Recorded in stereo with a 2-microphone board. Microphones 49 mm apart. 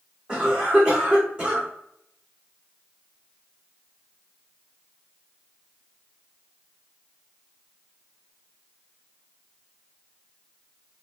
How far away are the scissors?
No scissors in this recording.